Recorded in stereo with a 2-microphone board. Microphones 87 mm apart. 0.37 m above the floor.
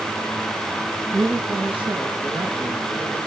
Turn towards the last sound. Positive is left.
turn(degrees=-80)